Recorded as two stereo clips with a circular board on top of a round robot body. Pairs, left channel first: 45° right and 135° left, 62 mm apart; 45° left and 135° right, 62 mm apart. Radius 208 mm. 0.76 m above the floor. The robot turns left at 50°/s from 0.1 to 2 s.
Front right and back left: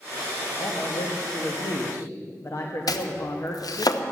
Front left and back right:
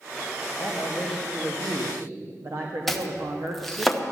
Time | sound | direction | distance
0.6 | a man speaking | 20° right | 1.4 m
2.9 | chopping | 45° right | 1.1 m